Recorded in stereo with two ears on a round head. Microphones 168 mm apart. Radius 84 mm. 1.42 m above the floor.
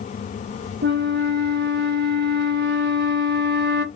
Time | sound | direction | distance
0.8 | a flute | 60° right (ahead or behind) | 0.9 m